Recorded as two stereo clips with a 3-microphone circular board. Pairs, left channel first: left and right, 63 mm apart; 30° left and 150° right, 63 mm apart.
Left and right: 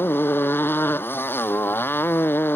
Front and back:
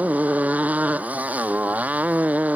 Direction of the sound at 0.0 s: 145° left.